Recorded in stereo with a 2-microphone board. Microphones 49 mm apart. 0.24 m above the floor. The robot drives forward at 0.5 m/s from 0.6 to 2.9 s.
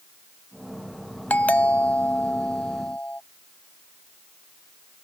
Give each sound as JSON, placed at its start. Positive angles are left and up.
{"t": 1.3, "sound": "a doorbell", "side_deg": 30}